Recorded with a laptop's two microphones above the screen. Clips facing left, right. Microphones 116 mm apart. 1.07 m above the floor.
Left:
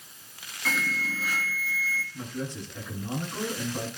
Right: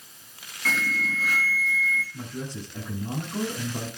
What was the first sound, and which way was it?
An alarm, 5° left (ahead or behind).